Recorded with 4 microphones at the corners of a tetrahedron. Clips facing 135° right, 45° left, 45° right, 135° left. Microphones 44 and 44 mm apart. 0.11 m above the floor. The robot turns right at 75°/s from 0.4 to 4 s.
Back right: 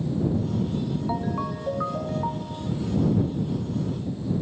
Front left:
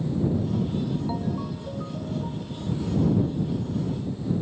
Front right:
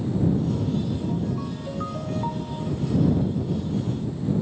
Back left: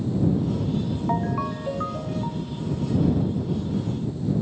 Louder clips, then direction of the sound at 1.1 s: Back right 2 dB, back left 3 dB; 155° left.